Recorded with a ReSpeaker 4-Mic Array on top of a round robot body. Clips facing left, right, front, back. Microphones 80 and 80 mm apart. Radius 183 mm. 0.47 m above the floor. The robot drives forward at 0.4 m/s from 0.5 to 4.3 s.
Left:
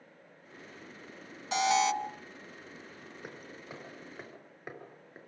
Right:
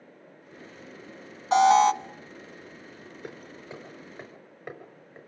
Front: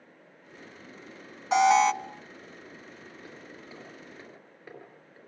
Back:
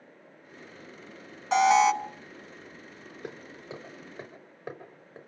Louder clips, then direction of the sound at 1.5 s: Right 9 dB, even; 90° right.